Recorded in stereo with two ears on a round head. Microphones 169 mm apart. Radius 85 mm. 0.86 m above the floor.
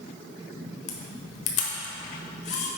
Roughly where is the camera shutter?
Left.